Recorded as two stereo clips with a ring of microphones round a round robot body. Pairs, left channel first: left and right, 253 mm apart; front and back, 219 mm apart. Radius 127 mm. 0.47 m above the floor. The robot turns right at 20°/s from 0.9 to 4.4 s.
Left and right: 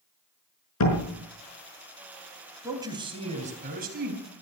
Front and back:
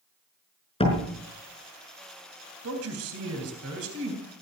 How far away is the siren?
I don't hear a siren.